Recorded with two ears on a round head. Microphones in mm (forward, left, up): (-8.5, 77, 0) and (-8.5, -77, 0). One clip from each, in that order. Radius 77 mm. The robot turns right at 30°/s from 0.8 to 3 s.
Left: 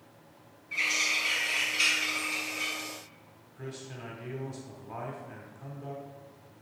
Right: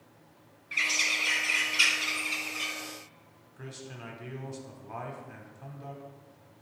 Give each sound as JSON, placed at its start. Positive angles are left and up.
{"t": 0.7, "sound": "a bird", "azimuth_deg": -70, "distance_m": 2.5}
{"t": 3.6, "sound": "a man speaking", "side_deg": -15, "distance_m": 1.2}